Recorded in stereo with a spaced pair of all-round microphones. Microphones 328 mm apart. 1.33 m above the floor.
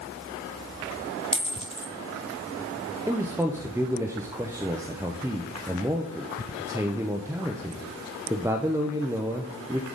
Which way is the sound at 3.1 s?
10° right (ahead or behind).